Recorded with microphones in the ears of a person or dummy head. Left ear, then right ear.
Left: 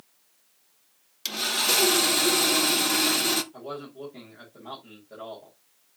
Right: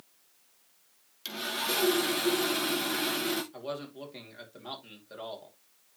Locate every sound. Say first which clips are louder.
1.2 s sawing: left 7 dB; 20° left (ahead or behind), 0.9 m
3.5 s a man speaking: left 1 dB; 60° right (ahead or behind), 3.5 m